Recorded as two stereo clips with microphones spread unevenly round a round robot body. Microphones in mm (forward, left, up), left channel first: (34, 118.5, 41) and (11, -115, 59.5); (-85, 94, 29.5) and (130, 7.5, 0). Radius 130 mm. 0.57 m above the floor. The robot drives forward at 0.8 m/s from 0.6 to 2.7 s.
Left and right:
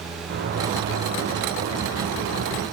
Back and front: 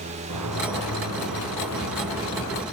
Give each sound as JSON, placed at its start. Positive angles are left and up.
{"t": 0.3, "sound": "a sliding door", "azimuth_deg": -50, "distance_m": 6.0}